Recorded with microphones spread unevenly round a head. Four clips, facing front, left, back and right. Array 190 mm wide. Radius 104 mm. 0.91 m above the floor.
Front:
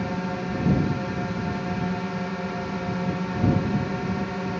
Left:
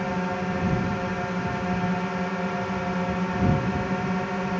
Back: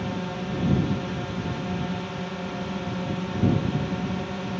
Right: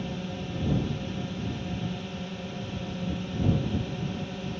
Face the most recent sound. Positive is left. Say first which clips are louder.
# left 8 dB, front 2 dB
turn(degrees=55)